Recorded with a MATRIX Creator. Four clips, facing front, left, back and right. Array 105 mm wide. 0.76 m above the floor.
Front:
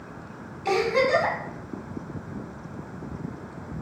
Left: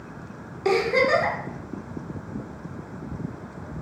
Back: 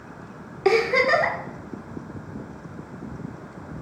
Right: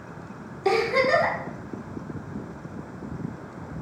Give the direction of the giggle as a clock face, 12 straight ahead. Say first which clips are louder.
Left 1 dB, back 3 dB; 6 o'clock.